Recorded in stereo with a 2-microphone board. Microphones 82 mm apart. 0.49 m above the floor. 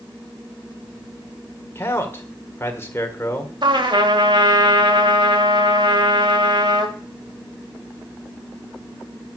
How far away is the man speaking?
About 1.6 m.